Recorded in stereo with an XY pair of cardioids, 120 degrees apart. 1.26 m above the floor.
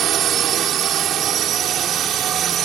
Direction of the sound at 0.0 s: 65° right.